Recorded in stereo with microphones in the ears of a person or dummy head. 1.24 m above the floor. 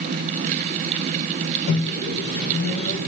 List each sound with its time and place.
1.7 s a microwave: 85° left, 3 m